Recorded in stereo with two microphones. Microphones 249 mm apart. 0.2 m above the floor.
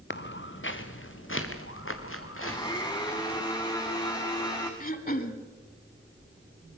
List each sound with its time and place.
0.1 s footsteps: 50° left (ahead or behind), 1.5 m; by 3.4 s 60° left (ahead or behind), 4.5 m
2.4 s a blender: 15° left (ahead or behind), 3.5 m
4.8 s throat clearing: 35° left (ahead or behind), 1.3 m